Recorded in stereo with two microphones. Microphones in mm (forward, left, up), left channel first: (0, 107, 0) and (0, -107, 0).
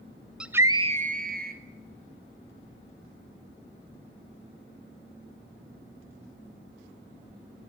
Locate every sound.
0.4 s a scream: 5° right (ahead or behind), 0.7 m; by 1.6 s 40° right (ahead or behind), 0.8 m